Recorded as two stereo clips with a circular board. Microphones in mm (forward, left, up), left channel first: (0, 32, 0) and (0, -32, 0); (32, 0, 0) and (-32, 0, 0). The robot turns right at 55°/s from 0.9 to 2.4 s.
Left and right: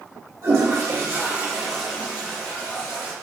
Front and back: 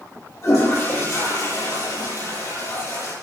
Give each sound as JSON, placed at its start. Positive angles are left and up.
{"t": 0.4, "sound": "a toilet flushing", "azimuth_deg": -45, "distance_m": 8.5}